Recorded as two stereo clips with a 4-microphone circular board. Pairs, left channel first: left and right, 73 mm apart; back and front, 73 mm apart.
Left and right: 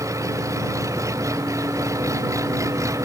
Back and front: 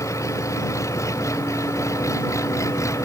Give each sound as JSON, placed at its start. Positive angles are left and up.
{"t": 0.0, "sound": "an engine running", "azimuth_deg": -135}